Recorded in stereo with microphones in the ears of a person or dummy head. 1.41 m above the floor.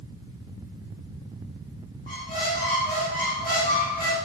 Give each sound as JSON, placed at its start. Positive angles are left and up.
{"t": 2.1, "sound": "a squeak", "side_deg": 45, "distance_m": 2.0}